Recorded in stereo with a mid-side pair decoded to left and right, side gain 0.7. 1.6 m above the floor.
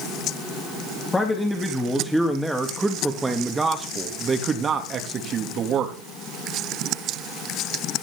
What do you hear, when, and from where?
1.1 s a man speaking: 15° left, 3.5 m; by 6.0 s 45° right, 3.5 m